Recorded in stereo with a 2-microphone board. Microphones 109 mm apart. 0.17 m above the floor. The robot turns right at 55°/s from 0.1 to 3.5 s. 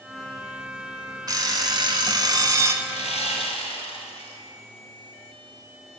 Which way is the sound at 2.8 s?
75° left.